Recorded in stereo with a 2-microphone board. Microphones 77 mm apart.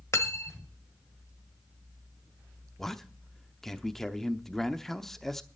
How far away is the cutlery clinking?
About 1.2 m.